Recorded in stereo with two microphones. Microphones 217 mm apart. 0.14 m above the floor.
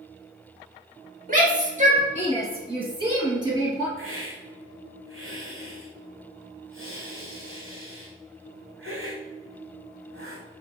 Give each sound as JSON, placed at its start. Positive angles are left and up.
{"t": 1.3, "sound": "a shout", "side_deg": -40, "distance_m": 2.5}
{"t": 4.0, "sound": "a hiss", "side_deg": -85, "distance_m": 3.0}